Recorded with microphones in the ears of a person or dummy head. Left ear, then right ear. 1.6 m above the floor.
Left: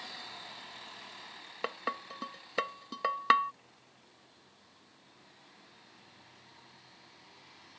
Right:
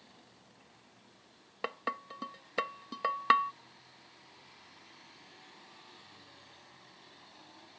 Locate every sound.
1.6 s dishes clattering: 5° left (ahead or behind)